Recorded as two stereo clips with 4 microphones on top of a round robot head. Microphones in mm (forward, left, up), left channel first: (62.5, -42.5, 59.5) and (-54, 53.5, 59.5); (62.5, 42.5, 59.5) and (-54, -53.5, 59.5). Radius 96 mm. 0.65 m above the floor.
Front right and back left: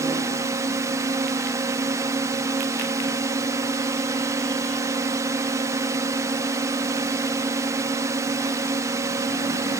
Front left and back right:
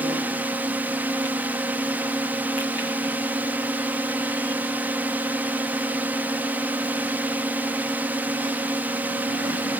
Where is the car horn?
I don't hear a car horn.